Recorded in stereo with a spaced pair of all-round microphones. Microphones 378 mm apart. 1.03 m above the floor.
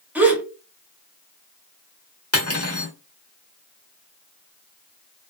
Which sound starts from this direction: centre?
A gasp, at 0.1 s.